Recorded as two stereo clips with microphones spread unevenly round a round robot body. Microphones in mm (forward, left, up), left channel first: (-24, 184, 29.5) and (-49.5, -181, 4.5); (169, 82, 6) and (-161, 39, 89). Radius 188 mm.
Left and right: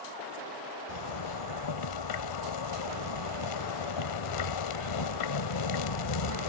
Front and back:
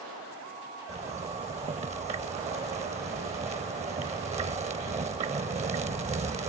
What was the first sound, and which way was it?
A zipper, 115° left.